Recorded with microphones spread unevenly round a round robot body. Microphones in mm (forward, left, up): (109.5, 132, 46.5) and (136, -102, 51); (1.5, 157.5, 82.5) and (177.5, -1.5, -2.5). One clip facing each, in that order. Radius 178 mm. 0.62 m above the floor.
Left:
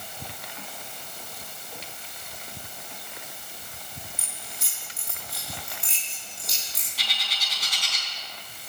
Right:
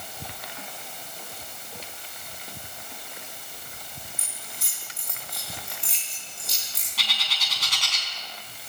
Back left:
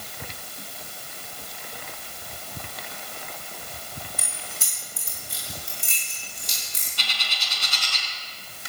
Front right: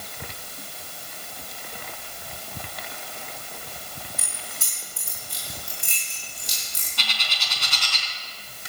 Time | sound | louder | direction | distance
4.2 | keys jangling | even, even | 170° left | 6 m
7.0 | a bird | right 2 dB, front right 3 dB | 65° right | 4 m